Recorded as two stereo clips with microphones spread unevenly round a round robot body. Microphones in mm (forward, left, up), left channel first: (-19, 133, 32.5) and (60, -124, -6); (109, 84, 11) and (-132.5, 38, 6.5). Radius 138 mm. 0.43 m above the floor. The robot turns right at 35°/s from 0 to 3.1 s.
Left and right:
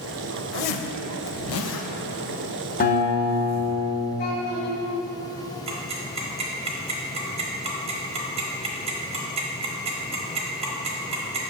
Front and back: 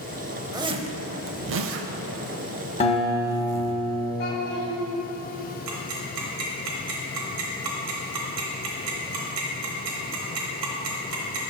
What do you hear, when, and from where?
0.5 s a zipper: 115° left, 0.5 m; by 3.8 s 155° right, 0.5 m
2.8 s a guitar: 55° left, 1.3 m; by 4.1 s 65° left, 1.3 m
4.2 s a child speaking: 55° left, 2 m
5.7 s ticking: 140° right, 1.0 m